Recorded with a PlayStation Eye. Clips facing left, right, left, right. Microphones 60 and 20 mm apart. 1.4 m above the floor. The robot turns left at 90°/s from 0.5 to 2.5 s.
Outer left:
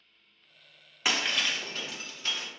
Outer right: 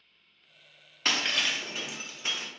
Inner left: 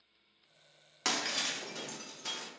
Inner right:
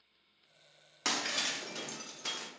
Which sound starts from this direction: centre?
Breaking glass, at 1.1 s.